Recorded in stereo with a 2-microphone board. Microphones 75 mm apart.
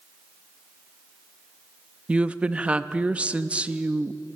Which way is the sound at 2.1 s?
15° right (ahead or behind).